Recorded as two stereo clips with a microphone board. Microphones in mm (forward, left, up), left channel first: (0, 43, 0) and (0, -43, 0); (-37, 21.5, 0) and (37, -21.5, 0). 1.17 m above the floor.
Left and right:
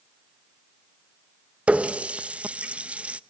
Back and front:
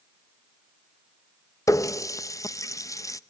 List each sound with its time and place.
1.7 s a running tap: 165° right, 0.6 m